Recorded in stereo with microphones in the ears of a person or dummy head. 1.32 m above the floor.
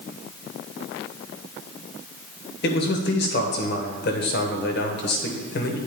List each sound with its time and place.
2.6 s a man speaking: 55° left (ahead or behind), 1.0 m